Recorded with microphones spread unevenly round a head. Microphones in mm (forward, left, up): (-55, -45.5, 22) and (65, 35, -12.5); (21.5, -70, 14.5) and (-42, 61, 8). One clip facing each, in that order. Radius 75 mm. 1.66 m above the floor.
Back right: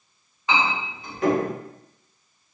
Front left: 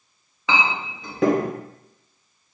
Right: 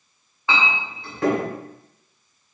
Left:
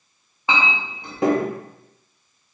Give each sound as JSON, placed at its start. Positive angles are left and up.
{"t": 0.5, "sound": "a clink", "azimuth_deg": 45, "distance_m": 0.8}